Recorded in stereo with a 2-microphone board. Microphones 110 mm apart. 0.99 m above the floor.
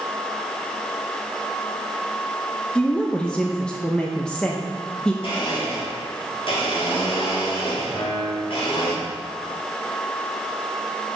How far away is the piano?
About 3 m.